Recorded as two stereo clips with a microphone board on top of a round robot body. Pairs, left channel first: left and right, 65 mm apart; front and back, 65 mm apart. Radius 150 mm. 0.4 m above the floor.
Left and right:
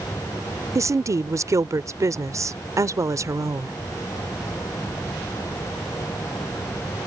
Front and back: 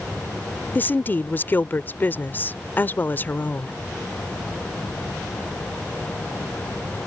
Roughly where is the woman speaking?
Ahead right.